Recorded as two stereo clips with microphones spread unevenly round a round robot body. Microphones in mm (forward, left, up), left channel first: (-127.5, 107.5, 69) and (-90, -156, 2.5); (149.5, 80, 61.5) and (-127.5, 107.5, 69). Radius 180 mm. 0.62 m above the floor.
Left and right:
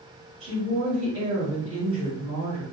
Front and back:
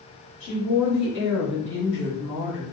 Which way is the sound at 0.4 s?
30° right.